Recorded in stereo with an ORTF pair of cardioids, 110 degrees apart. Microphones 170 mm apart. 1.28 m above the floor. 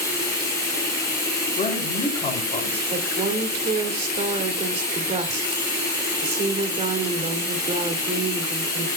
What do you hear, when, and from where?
0.0 s running water: 20° left, 4 m
1.6 s a woman speaking: 35° left, 4 m
2.9 s a woman speaking: 40° right, 2.5 m